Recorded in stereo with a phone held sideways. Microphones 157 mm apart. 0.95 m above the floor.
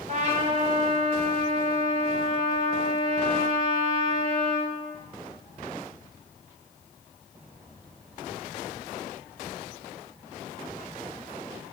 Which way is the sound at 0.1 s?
50° right (ahead or behind).